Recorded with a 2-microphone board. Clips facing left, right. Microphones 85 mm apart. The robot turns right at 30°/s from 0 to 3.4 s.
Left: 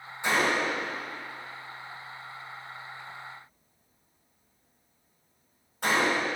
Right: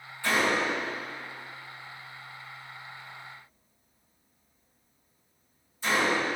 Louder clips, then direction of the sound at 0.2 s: Even; 20° left (ahead or behind).